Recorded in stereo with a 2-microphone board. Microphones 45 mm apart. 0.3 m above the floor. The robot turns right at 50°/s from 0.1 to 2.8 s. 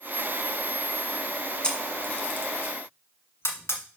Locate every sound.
1.6 s a camera shutter: 20° left (ahead or behind), 1.6 m; by 3.8 s 70° left (ahead or behind), 1.6 m